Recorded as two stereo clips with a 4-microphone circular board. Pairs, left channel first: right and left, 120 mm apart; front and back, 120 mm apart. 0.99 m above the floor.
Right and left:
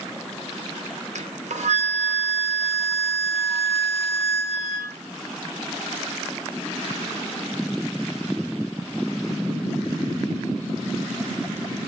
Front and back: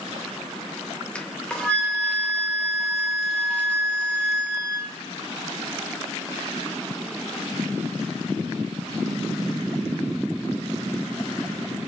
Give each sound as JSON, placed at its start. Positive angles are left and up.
{"t": 1.1, "sound": "a flute", "azimuth_deg": 80, "distance_m": 0.6}